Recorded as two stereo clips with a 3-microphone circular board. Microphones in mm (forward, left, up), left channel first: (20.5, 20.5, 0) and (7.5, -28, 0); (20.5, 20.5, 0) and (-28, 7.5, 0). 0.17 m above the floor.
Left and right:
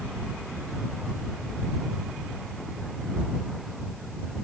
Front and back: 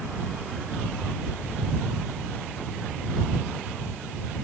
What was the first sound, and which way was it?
Only background noise.